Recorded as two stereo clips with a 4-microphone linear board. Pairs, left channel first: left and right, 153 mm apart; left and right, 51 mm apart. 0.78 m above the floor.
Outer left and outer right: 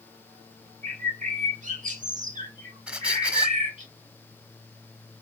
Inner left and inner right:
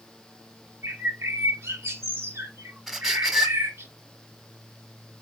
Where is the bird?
55° right (ahead or behind), 1.5 m.